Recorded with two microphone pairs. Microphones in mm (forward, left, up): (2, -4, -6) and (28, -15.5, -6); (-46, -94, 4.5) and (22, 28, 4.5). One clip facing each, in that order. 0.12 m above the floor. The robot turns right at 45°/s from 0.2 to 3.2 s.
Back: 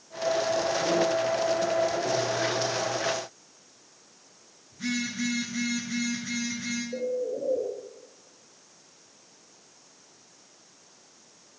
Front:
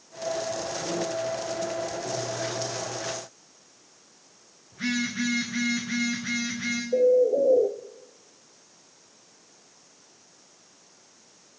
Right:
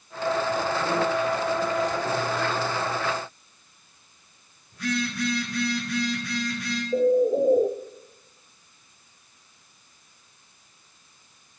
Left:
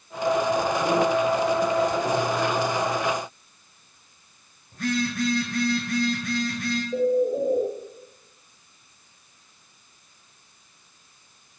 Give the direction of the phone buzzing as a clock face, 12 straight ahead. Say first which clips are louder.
Front 3 dB, left 3 dB; 11 o'clock.